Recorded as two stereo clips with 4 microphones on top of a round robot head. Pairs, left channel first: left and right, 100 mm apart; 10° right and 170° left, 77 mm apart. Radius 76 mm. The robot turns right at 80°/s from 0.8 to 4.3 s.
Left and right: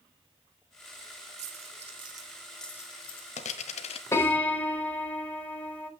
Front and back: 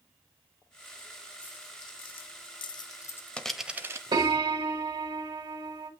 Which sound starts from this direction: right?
A dropped coin, at 1.4 s.